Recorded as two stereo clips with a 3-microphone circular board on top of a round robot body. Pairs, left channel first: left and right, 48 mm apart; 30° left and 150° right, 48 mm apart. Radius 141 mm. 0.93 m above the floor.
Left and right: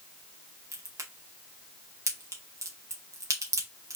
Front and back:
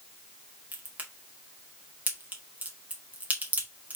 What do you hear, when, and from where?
0.7 s a crack: 90° right, 2 m